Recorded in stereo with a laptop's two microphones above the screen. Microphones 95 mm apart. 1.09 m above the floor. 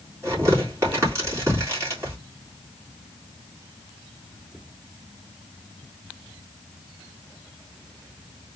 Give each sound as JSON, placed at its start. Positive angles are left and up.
{"t": 0.2, "sound": "tearing paper", "side_deg": -30, "distance_m": 2.5}